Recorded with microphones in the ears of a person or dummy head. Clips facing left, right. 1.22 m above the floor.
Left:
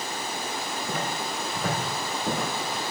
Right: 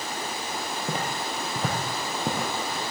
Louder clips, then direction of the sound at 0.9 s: Even; 35° right (ahead or behind).